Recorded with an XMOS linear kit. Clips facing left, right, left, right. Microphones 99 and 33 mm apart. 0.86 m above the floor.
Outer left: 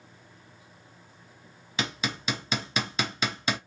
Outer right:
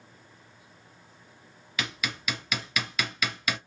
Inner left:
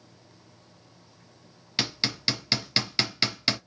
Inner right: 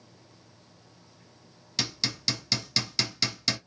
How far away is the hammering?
About 0.6 m.